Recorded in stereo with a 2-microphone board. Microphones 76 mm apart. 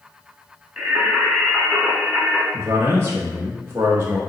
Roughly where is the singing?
Centre.